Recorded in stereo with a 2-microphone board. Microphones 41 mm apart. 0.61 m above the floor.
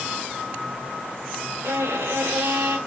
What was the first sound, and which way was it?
A violin, 80° right.